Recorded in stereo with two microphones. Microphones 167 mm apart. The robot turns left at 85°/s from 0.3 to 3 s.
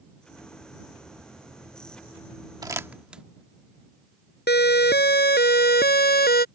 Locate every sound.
2.6 s crumpling: 25° right (ahead or behind); by 3.2 s 5° right (ahead or behind)
4.5 s a siren: 80° left; by 6.5 s 70° left (ahead or behind)